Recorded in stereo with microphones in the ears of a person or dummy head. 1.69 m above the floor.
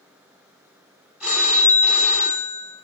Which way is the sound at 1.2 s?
5° right (ahead or behind).